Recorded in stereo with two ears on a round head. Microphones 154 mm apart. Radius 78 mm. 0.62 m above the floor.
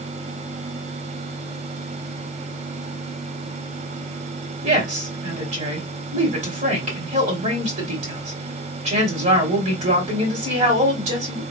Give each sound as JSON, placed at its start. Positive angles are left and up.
{"t": 4.6, "sound": "a woman speaking", "side_deg": -45, "distance_m": 2.5}